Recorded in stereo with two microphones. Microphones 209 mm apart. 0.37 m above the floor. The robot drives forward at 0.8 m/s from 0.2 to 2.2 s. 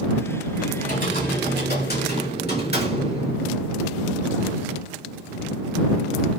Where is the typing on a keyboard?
45° left (ahead or behind), 2.5 m; by 3.4 s 55° left (ahead or behind), 2 m.